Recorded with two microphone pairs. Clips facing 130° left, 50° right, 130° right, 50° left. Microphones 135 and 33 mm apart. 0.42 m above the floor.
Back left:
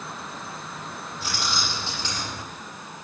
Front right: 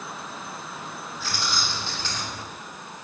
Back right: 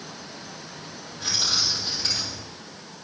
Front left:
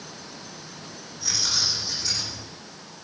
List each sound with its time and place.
1.2 s keys jangling: 160° right, 10 m